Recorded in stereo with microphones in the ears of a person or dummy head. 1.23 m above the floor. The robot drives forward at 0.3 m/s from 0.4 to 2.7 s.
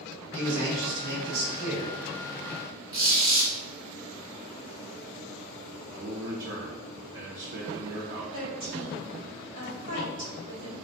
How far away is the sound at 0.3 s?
About 1.5 m.